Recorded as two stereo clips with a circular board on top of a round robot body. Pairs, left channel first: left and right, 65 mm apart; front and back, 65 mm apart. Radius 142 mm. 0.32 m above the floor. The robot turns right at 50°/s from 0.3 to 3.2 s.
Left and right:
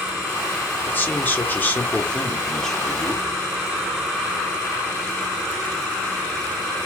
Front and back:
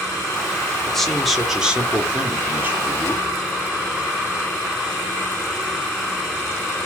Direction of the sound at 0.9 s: 75° left.